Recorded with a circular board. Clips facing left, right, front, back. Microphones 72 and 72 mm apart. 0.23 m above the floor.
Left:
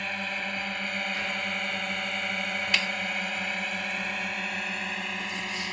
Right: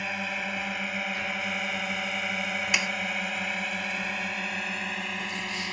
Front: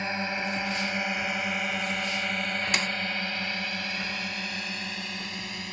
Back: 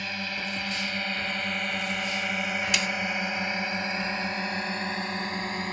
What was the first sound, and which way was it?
A drone, 10° right.